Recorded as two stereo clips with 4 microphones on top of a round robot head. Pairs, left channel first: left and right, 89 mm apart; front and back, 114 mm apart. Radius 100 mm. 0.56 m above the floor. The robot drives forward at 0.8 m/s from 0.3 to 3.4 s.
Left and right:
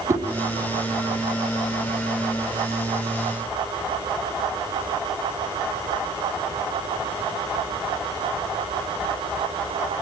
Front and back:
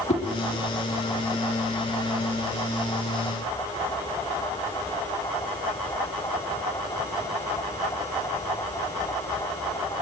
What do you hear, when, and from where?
0.1 s a whoosh: 35° right, 5.5 m